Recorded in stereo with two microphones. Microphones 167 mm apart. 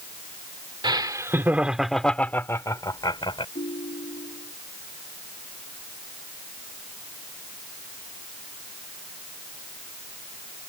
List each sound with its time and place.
0.8 s laughter: 30° right (ahead or behind); by 3.5 s 30° left (ahead or behind)
3.5 s a ringtone: 55° left (ahead or behind)